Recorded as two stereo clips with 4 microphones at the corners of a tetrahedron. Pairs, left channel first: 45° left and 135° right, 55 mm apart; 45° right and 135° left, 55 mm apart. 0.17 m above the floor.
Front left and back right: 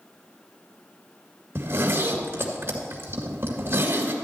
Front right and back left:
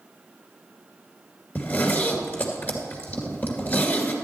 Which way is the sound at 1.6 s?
100° right.